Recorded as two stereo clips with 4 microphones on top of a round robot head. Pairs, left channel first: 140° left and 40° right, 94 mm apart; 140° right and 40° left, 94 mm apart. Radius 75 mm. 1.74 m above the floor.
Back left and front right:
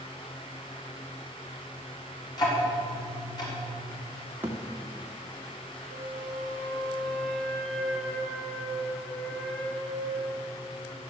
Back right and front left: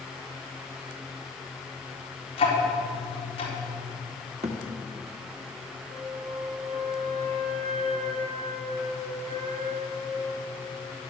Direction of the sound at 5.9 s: 60° left.